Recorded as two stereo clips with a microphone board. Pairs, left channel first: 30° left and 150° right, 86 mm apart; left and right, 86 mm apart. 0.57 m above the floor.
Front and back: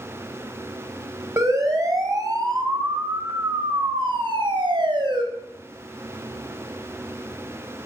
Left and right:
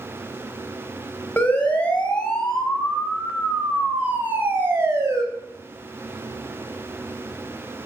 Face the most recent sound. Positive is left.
turn(degrees=-140)